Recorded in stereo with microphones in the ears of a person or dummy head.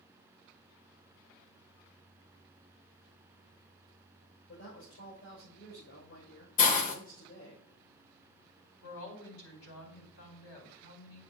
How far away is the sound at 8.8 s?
About 4 m.